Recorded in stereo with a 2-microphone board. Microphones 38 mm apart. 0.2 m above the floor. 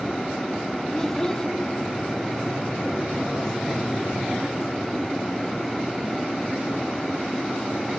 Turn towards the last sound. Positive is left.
turn(degrees=15)  # may be behind; listen again after turning